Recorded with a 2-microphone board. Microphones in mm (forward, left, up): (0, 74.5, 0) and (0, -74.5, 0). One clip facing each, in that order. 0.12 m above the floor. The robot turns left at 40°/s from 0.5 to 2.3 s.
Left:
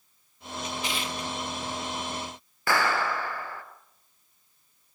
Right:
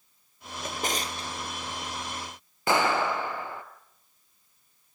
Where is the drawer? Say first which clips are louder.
Right 1 dB; 50° right (ahead or behind), 1.5 m; by 1.3 s 25° right (ahead or behind), 1.5 m.